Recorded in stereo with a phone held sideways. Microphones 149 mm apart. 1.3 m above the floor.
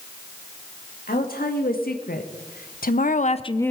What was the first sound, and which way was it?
A woman speaking, 85° left.